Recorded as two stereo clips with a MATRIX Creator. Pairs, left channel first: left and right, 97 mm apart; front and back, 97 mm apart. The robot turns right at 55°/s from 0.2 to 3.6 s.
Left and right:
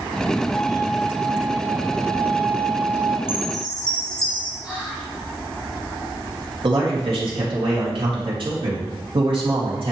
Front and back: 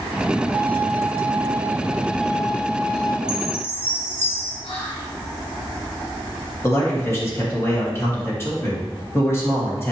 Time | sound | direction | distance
0.5 | a violin | 165° left | 1.1 m
3.3 | a chime | 10° right | 1.4 m
4.6 | whispering | 10° right | 1.3 m
6.6 | a man speaking | 60° right | 2.5 m